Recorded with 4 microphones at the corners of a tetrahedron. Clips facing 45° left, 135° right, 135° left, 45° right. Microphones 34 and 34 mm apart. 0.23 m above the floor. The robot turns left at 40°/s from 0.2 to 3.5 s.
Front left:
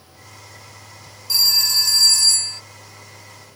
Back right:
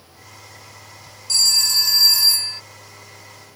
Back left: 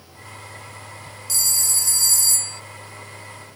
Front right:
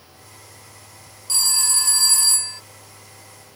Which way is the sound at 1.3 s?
25° right.